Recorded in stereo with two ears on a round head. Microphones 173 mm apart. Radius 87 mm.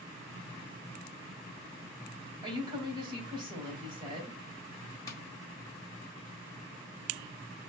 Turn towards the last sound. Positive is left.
turn(degrees=20)  # may be behind; listen again after turning